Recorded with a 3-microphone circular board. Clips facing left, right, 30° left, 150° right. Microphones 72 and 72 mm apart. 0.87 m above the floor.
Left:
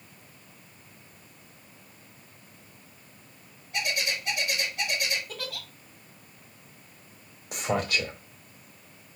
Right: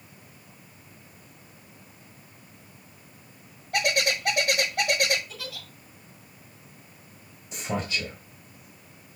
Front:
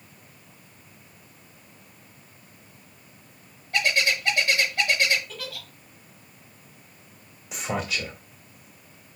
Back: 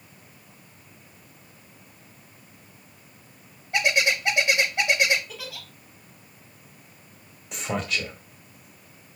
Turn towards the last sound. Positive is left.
turn(degrees=115)